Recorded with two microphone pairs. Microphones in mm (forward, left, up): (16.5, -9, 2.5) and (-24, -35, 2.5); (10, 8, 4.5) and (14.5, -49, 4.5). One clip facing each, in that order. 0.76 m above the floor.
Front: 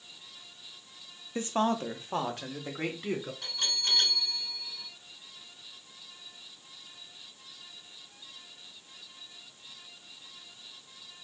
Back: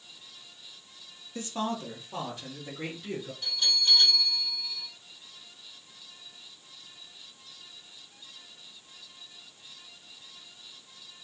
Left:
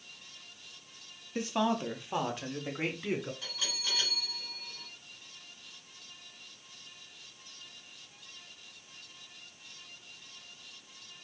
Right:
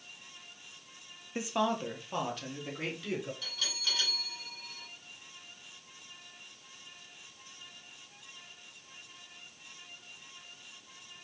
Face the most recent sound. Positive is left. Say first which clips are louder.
# back 4 dB, even
turn(degrees=25)